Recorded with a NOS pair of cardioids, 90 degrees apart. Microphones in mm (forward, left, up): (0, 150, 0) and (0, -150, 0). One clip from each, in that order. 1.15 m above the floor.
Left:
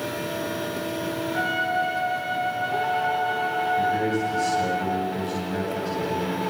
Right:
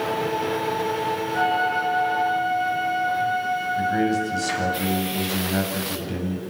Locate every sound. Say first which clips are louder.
1.3 s a flute: right 2 dB; 10° right, 7 m
3.8 s a man speaking: right 1 dB; 50° right, 9.5 m